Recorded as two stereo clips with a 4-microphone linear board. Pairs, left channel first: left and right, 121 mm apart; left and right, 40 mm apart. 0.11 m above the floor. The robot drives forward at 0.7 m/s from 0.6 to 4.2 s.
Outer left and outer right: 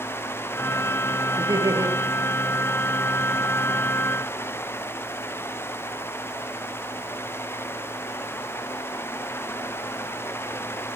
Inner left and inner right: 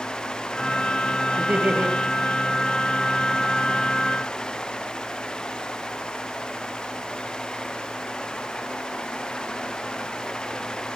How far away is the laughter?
About 2.5 m.